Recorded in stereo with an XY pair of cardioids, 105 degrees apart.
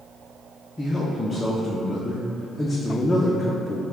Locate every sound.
0.8 s a man speaking: 20° left, 0.6 m